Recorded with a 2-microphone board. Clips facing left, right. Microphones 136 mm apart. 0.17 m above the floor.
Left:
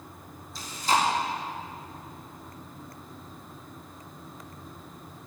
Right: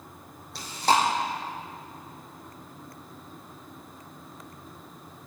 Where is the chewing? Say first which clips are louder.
Right 3 dB; 70° right (ahead or behind), 4.5 m.